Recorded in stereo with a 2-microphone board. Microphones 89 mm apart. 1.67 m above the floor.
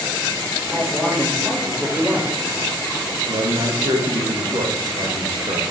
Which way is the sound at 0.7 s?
10° right (ahead or behind).